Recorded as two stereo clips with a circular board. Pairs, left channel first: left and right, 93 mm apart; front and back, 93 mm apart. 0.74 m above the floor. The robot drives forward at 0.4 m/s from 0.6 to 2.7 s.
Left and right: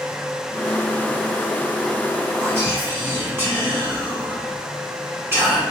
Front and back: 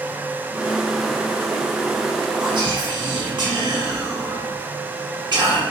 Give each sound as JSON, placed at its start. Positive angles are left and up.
{"t": 2.4, "sound": "whispering", "azimuth_deg": -150, "distance_m": 1.9}